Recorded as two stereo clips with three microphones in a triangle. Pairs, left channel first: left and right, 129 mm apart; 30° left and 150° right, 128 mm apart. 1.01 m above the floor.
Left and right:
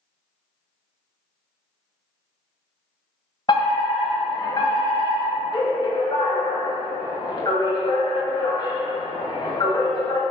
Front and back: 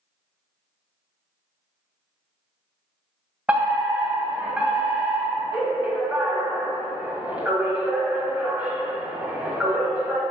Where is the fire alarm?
130° left, 1.8 m.